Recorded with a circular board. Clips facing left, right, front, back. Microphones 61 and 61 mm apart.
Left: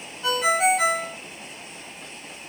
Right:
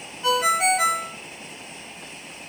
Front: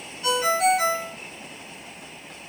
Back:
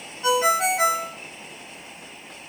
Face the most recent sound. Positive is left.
turn(degrees=-175)